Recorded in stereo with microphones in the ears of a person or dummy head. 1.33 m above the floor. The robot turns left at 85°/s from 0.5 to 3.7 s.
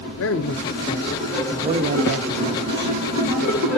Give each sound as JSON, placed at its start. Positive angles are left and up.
{"t": 0.2, "sound": "a man speaking", "azimuth_deg": 70, "distance_m": 1.0}